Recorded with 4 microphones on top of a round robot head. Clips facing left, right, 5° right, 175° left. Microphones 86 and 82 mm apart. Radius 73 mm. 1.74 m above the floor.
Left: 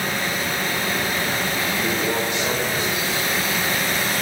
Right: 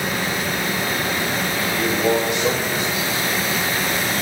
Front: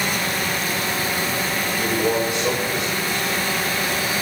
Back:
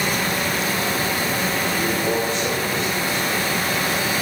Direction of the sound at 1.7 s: 80° right.